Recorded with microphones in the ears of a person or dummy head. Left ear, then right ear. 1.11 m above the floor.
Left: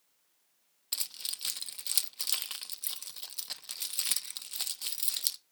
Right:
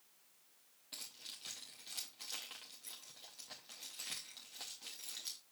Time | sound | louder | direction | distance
0.9 | keys jangling | left 12 dB | 55° left (ahead or behind) | 0.7 m